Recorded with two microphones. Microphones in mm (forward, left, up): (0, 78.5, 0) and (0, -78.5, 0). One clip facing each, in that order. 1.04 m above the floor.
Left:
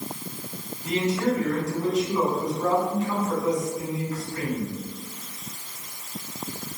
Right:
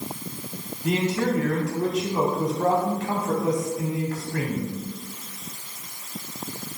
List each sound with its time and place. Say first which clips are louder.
0.8 s a man speaking: even; 85° right, 2.5 m